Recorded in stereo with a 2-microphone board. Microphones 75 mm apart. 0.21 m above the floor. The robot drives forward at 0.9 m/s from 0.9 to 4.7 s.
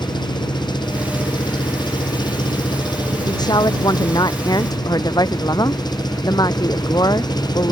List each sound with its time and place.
0.0 s an engine running: 75° left (ahead or behind); by 7.7 s 65° left (ahead or behind)
3.3 s a woman speaking: 65° left (ahead or behind); by 7.7 s 60° left (ahead or behind)